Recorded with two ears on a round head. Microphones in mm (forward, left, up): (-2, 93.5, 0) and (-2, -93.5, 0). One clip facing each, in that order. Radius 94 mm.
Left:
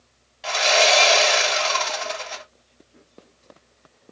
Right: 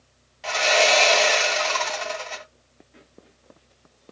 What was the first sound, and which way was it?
Sawing, centre (ahead or behind).